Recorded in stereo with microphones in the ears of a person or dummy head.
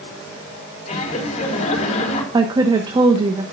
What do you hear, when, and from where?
0.9 s laughter: 45° left (ahead or behind), 4 m
2.3 s a woman speaking: 25° right (ahead or behind), 1.1 m